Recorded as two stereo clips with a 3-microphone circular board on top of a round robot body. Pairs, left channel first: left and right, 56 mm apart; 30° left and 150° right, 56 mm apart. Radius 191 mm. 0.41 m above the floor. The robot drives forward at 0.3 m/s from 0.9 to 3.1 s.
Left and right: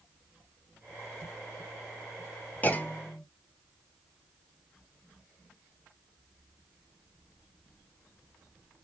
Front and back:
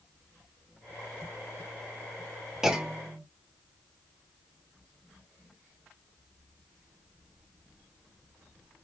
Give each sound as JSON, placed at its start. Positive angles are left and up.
{"t": 2.6, "sound": "a clunk", "azimuth_deg": 135, "distance_m": 0.9}